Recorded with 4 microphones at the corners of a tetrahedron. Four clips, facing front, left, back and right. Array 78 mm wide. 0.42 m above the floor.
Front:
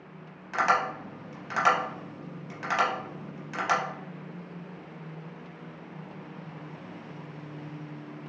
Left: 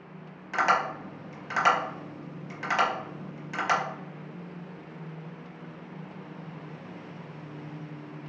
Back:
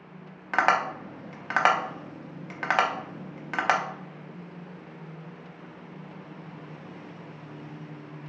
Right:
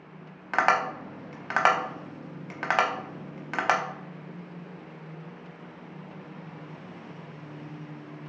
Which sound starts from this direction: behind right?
Tapping, at 0.5 s.